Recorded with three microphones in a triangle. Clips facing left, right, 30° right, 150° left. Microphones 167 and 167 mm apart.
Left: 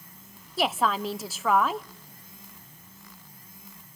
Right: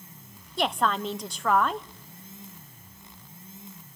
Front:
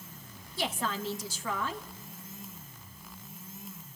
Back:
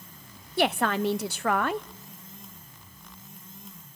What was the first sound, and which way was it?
A woman speaking, 175° left.